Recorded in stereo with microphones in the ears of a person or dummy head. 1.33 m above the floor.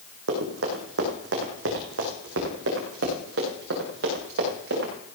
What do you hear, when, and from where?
0.3 s running footsteps: 70° right (ahead or behind), 4 m